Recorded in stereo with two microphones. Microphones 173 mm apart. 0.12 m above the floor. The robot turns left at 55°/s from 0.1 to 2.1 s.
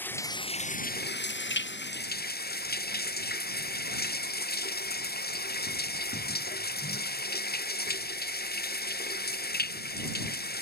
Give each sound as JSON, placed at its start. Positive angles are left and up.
{"t": 0.0, "sound": "running water", "azimuth_deg": 170}